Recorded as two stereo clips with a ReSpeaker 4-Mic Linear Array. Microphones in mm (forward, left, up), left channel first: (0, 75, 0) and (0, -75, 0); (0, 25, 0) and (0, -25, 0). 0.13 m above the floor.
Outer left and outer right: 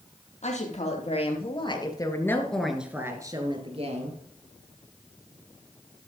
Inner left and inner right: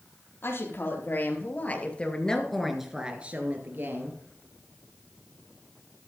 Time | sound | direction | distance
0.4 | a woman speaking | 55° left (ahead or behind) | 3.5 m